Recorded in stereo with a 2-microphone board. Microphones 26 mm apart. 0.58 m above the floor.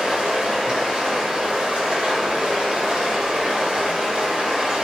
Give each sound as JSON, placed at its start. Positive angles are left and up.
{"t": 0.0, "sound": "running water", "side_deg": -50, "distance_m": 1.3}